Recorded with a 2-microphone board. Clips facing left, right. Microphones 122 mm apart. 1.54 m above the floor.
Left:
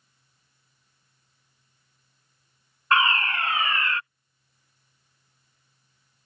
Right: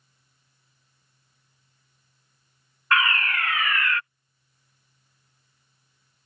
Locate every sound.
2.9 s a fire alarm: 30° left (ahead or behind)